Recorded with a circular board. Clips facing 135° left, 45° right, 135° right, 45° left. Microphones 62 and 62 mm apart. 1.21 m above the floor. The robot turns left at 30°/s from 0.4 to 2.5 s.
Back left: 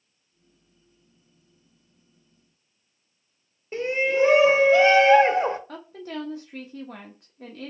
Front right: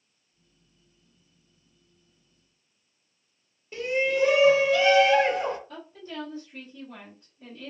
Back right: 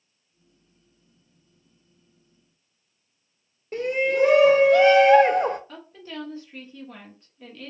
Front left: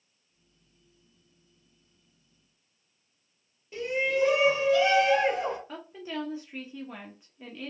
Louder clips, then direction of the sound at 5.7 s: Back left 4 dB, front left 2 dB; 125° left.